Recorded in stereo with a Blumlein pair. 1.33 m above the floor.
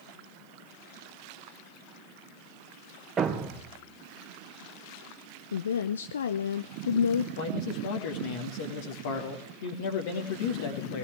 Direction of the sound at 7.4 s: 55° left.